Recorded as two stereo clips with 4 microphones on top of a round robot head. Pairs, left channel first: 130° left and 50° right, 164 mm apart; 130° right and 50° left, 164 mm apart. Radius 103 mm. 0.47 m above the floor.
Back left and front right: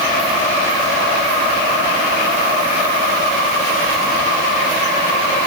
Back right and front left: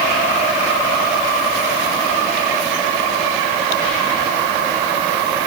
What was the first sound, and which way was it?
Only background noise.